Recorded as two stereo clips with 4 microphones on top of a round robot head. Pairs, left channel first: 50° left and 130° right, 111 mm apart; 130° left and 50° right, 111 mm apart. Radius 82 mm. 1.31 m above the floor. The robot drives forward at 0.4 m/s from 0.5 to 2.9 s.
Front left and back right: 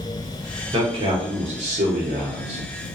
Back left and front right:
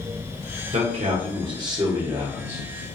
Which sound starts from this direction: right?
A man speaking, at 0.7 s.